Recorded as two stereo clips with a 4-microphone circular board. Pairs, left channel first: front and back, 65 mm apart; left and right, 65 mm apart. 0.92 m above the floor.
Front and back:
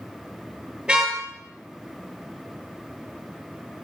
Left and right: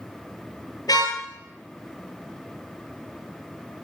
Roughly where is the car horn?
Left.